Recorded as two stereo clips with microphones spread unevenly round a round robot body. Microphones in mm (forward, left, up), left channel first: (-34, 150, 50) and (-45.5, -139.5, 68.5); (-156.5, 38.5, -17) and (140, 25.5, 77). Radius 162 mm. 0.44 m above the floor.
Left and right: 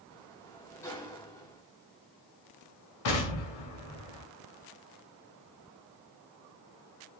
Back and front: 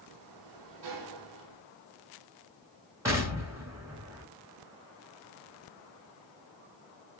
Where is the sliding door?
10° left, 2 m.